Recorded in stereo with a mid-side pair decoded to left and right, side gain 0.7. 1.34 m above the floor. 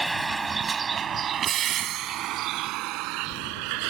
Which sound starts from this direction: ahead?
A vehicle, at 0.0 s.